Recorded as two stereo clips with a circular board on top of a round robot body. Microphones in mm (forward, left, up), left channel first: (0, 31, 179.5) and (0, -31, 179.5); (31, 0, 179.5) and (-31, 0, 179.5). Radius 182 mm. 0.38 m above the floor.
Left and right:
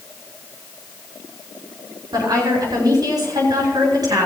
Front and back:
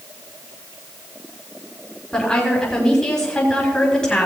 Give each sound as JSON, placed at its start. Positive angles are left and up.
{"t": 2.1, "sound": "a woman speaking", "azimuth_deg": -80, "distance_m": 6.5}